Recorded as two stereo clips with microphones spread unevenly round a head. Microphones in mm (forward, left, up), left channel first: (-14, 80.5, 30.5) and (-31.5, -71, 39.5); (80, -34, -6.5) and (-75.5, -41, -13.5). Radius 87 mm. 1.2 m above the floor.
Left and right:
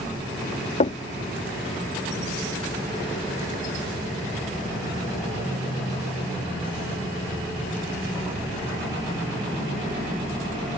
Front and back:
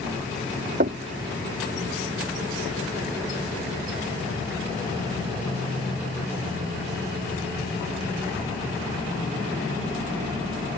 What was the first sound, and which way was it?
Knocking, 135° left.